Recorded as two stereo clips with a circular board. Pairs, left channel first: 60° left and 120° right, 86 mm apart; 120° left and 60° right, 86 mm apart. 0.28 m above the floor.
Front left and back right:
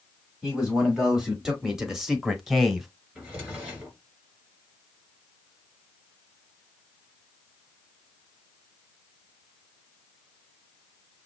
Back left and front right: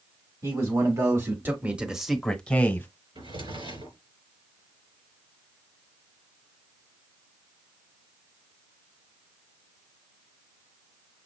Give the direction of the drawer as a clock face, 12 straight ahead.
2 o'clock.